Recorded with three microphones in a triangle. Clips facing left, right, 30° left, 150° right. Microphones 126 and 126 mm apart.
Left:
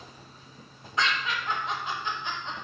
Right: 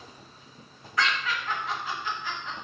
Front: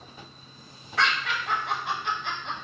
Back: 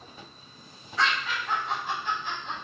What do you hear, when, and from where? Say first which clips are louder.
1.0 s laughter: even, front 1 dB; 25° left, 0.8 m